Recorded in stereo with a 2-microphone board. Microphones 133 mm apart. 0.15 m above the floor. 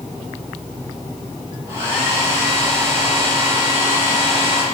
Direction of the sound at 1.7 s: 15° right (ahead or behind).